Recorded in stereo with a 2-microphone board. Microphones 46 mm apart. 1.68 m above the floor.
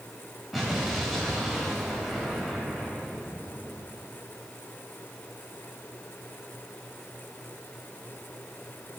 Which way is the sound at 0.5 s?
5° right (ahead or behind).